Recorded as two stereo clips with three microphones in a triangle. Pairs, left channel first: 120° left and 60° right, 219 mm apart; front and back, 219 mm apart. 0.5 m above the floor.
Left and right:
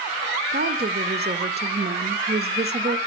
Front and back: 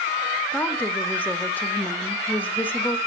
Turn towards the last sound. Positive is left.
turn(degrees=-80)